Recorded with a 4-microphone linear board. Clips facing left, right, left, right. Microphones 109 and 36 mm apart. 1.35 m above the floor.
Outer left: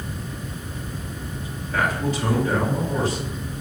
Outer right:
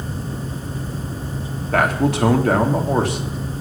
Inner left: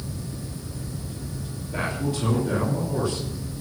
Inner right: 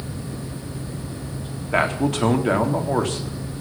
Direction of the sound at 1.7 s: 65° right (ahead or behind).